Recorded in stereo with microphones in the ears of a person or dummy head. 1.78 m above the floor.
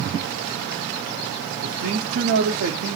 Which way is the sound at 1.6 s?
65° right (ahead or behind).